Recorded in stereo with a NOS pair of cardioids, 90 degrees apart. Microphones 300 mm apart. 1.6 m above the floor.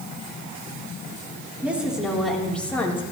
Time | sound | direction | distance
1.6 | a woman speaking | 5° right | 5 m